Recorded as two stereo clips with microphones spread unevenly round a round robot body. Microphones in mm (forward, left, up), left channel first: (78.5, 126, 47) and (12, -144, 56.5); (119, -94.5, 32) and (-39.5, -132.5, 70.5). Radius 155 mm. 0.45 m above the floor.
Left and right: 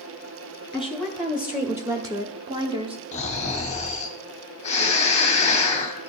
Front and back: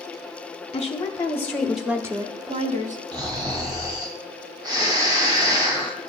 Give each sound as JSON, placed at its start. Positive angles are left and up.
{"t": 0.7, "sound": "a woman speaking", "azimuth_deg": -10, "distance_m": 1.3}
{"t": 3.1, "sound": "snoring", "azimuth_deg": 125, "distance_m": 1.5}